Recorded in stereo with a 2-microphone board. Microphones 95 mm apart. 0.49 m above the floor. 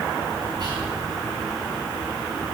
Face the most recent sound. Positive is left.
turn(degrees=-50)  # may be behind; listen again after turning